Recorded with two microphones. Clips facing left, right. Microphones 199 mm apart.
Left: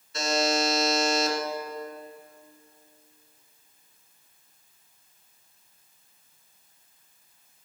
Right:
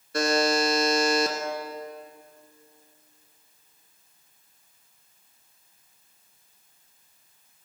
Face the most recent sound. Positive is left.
turn(degrees=-60)  # may be behind; listen again after turning